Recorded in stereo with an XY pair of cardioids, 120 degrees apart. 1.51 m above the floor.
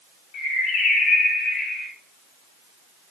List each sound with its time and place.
0.3 s a bird: 60° left, 3.5 m